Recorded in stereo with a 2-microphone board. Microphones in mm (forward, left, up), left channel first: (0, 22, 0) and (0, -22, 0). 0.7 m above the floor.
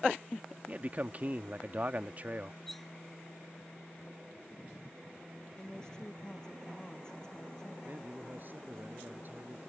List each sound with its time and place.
0.7 s a man speaking: 35° right (ahead or behind)
2.7 s cutlery clinking: 5° left (ahead or behind)
5.6 s a woman speaking: 15° left (ahead or behind)
7.8 s a man speaking: 45° right (ahead or behind)